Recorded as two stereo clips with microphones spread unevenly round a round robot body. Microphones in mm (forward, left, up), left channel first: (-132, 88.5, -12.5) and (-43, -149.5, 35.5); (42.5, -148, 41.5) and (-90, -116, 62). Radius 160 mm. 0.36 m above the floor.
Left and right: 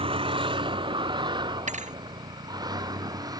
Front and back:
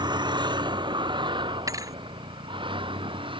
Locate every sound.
0.0 s a vehicle: 140° right; by 3.4 s 145° right
1.7 s a thud: 130° right